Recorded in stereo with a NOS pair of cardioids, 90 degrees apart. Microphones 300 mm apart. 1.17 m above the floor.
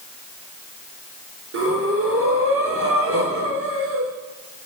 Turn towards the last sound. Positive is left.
turn(degrees=-50)